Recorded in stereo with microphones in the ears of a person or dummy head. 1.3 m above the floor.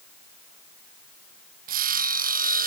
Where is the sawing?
45° right (ahead or behind).